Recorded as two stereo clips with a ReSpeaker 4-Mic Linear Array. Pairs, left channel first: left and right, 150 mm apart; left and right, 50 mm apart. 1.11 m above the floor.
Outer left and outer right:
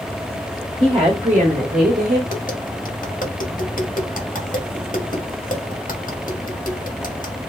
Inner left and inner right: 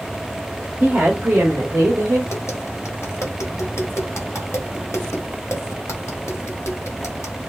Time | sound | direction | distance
0.8 | a woman speaking | 25° right (ahead or behind) | 1.2 m
2.3 | tapping | 55° left (ahead or behind) | 1.2 m